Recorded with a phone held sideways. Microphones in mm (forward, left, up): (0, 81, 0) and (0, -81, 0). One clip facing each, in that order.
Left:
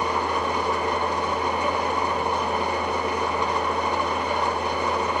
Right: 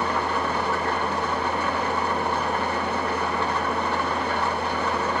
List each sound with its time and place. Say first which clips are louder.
0.0 s an engine running: even; 15° left (ahead or behind), 2.5 m